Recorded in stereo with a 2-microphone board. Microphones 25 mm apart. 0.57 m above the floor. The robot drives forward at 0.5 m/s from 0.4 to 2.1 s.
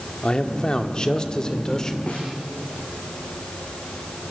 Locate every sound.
0.2 s a man speaking: 30° left (ahead or behind), 1.1 m; by 2.0 s 20° left (ahead or behind), 1.7 m
2.1 s a snare drum: 60° left (ahead or behind), 8 m